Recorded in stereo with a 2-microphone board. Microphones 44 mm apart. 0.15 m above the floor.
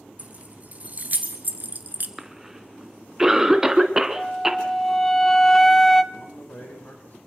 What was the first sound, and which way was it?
Keys jangling, 35° right (ahead or behind).